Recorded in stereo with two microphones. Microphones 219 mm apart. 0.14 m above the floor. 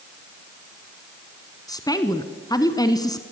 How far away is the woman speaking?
About 1.2 m.